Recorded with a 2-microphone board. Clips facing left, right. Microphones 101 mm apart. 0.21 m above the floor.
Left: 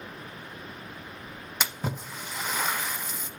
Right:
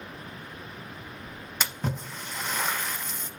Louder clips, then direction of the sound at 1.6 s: Even; 5° left (ahead or behind).